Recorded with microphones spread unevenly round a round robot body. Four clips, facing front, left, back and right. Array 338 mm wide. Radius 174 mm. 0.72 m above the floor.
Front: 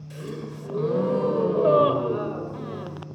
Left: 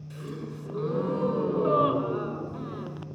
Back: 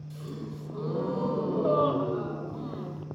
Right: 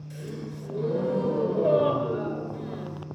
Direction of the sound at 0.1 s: 5° right.